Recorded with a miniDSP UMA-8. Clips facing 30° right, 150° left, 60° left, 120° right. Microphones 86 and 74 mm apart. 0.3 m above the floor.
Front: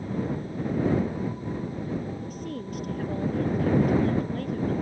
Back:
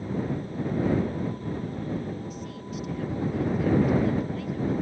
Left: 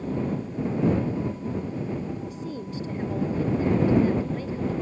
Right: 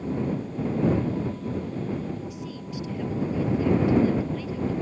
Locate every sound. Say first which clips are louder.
2.2 s a woman speaking: front 2 dB, left 2 dB; 10° left